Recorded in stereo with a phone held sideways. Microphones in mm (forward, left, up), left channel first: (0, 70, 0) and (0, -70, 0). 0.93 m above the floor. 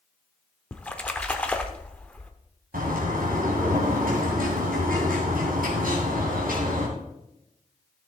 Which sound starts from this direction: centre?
A splash, at 0.7 s.